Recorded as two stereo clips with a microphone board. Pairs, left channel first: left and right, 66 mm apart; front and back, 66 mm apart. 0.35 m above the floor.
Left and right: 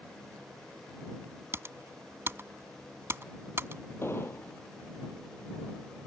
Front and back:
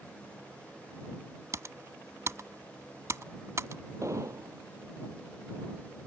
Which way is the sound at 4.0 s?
140° left.